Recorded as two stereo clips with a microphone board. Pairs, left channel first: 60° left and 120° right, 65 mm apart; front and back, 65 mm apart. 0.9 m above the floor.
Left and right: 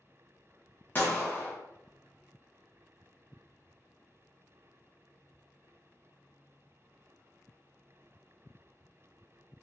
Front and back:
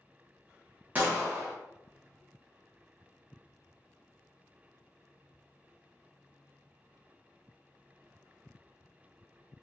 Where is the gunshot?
115° left, 0.8 m.